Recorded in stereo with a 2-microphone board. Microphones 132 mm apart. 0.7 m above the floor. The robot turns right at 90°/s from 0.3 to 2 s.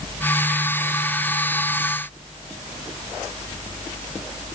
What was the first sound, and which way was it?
Only background noise.